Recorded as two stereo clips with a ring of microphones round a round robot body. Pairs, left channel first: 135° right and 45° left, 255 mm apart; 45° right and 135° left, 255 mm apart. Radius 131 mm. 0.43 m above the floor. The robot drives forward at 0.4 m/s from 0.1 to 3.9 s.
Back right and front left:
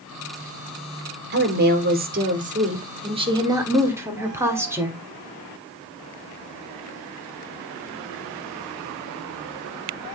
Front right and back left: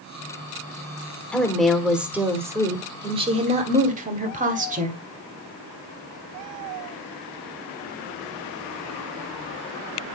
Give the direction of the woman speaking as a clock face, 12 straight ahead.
11 o'clock.